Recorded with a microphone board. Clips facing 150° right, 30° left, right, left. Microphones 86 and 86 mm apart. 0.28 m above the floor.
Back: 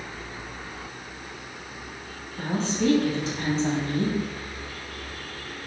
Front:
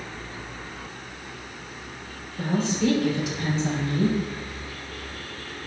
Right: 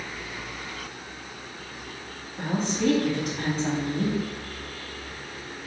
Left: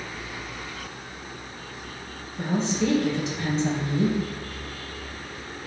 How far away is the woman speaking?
About 1.6 m.